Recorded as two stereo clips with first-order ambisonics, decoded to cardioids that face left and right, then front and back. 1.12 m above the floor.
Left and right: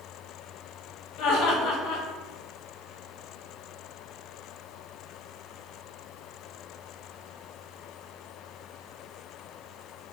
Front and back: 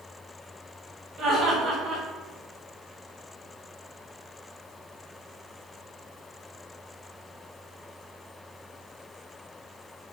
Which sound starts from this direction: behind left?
Laughter, at 1.2 s.